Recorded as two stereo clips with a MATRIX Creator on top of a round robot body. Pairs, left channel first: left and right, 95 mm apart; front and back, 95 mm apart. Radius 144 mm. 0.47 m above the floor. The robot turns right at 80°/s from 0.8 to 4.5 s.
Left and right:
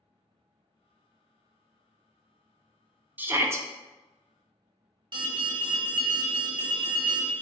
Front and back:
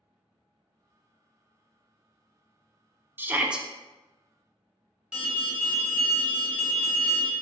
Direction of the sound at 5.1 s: 95° right.